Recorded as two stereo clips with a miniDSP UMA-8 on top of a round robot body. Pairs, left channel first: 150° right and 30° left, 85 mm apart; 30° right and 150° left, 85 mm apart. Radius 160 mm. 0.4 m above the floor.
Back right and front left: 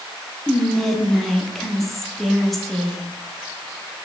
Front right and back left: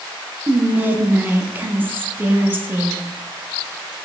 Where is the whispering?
125° left, 0.9 m.